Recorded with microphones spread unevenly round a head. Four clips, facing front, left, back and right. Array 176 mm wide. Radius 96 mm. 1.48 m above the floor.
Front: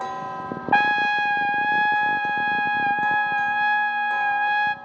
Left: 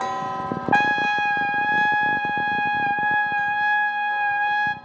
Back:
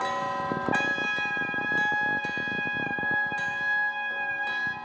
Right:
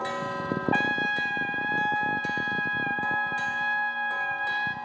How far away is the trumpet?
About 1.3 m.